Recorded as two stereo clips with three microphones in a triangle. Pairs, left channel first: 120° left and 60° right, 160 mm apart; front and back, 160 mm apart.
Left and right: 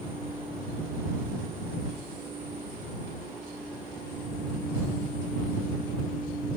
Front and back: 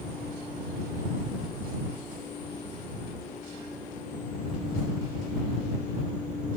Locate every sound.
Only background noise.